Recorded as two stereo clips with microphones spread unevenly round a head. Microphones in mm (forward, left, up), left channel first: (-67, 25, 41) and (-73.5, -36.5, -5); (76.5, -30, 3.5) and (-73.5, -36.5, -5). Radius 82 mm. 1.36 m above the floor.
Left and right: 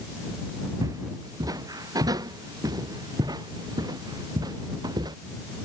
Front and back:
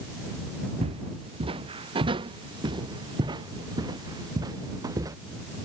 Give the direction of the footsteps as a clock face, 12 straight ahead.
4 o'clock.